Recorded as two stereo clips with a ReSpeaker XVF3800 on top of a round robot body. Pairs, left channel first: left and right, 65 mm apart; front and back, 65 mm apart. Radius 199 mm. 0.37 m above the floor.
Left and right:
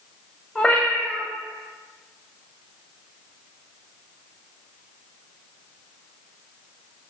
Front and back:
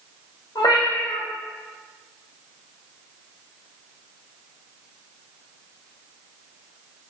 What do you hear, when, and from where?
0.6 s a cat meowing: 10° left, 0.9 m